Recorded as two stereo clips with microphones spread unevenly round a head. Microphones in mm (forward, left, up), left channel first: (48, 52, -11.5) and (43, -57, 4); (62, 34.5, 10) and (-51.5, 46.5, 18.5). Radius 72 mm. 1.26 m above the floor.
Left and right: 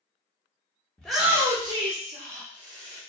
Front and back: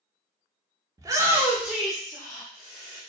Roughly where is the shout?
Behind left.